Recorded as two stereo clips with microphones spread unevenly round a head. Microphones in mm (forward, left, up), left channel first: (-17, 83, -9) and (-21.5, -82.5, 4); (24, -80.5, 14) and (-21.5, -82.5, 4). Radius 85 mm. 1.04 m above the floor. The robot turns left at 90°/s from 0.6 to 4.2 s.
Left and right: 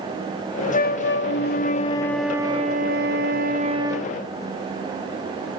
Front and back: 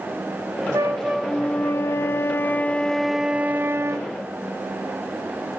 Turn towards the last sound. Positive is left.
turn(degrees=175)